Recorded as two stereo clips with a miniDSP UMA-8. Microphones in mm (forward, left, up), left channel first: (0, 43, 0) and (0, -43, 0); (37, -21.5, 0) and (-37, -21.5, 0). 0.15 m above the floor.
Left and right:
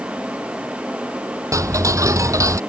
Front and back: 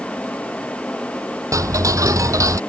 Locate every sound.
1.5 s ticking: 140° right